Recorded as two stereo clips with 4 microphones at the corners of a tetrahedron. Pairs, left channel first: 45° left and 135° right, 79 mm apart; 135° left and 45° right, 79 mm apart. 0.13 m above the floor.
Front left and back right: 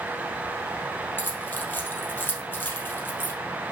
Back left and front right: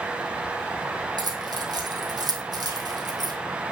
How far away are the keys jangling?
About 3 m.